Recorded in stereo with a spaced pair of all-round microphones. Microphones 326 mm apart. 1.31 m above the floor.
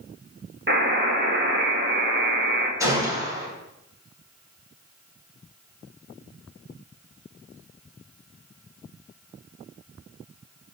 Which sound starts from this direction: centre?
A gunshot, at 2.8 s.